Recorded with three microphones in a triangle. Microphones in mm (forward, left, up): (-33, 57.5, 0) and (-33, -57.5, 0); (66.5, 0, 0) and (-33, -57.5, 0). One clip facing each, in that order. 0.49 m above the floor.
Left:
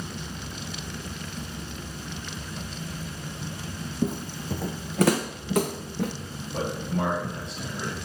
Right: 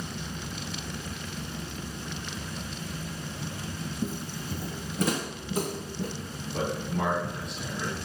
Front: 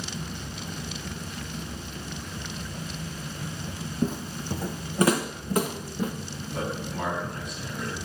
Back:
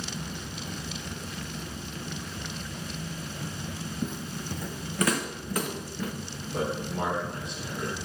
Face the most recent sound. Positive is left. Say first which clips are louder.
# left 1 dB, back 2 dB
turn(degrees=150)